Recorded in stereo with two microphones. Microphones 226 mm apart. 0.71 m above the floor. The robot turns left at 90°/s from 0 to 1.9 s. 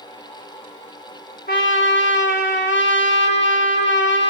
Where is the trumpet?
120° left, 0.9 m; by 4.3 s 80° left, 0.9 m.